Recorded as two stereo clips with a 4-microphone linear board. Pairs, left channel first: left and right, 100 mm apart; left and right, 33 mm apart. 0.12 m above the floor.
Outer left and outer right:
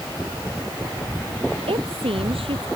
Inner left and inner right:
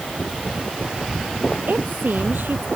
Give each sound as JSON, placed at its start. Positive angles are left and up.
{"t": 1.7, "sound": "a woman speaking", "side_deg": -70}